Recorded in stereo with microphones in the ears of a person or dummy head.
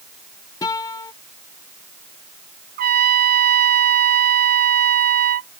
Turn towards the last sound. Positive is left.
turn(degrees=-50)  # may be behind; listen again after turning